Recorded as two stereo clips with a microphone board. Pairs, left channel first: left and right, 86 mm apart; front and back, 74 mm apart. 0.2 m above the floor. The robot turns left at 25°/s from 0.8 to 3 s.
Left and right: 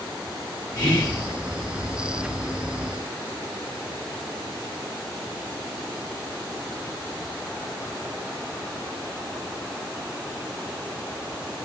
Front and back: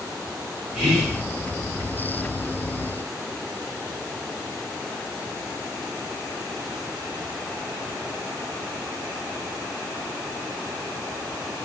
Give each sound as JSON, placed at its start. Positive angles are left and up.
{"t": 0.8, "sound": "whispering", "azimuth_deg": 85, "distance_m": 1.6}